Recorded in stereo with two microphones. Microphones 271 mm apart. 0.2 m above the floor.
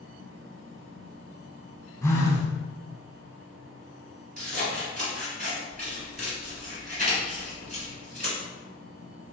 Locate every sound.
2.0 s a phone buzzing: 10° left (ahead or behind), 0.7 m
4.4 s scissors: 30° right (ahead or behind), 1.4 m